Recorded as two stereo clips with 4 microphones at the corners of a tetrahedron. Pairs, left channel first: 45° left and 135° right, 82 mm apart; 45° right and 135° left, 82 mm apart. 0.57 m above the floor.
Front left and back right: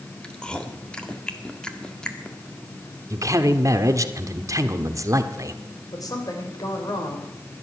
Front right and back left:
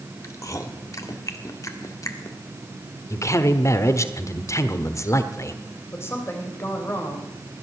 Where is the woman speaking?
10° left, 3 m.